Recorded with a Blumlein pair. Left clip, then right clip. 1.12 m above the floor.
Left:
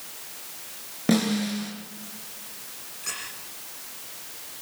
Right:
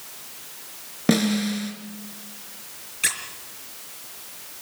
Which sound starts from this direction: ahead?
A snare drum, at 1.1 s.